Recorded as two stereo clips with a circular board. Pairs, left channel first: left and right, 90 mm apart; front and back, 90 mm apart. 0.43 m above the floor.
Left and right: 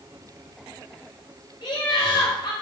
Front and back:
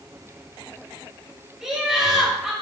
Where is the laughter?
95° left, 2.5 m.